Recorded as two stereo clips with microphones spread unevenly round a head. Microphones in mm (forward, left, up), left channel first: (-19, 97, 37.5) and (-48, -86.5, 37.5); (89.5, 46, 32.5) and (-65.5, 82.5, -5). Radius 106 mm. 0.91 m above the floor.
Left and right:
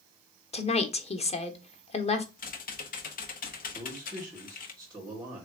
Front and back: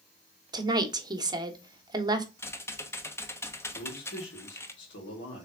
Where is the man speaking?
25° right, 2.5 m.